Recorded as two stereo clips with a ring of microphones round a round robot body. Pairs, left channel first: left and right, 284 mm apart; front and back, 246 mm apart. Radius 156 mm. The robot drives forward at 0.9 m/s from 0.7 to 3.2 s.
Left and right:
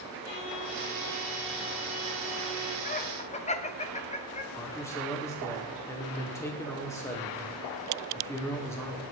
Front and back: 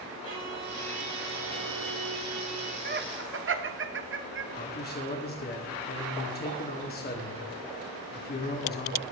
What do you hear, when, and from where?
0.2 s a violin: 150° left, 4 m; by 2.8 s 160° left, 5.5 m
2.9 s laughter: 145° left, 1.1 m; by 4.4 s 155° left, 1.3 m
4.5 s a man speaking: 15° left, 1.7 m